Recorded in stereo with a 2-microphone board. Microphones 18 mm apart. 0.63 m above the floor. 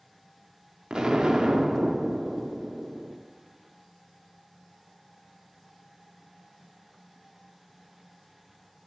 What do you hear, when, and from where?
0.9 s an explosion: 45° right (ahead or behind), 0.6 m